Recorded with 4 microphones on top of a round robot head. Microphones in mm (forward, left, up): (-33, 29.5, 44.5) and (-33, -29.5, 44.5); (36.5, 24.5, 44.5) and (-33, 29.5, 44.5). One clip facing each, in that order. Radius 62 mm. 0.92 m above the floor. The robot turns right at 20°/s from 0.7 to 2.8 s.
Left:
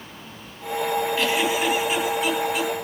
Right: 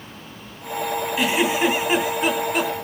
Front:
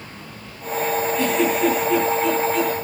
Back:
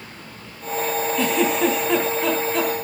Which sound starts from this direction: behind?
A giggle, at 1.2 s.